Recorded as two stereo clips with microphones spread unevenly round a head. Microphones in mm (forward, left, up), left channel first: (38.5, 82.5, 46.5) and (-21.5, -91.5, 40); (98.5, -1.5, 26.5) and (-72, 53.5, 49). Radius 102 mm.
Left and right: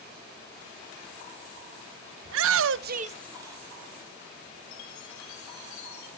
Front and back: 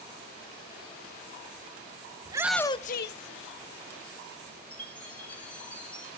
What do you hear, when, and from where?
2.2 s a shout: 130° right, 0.6 m; by 3.6 s 30° right, 1.1 m
4.7 s a chime: 70° left, 2.5 m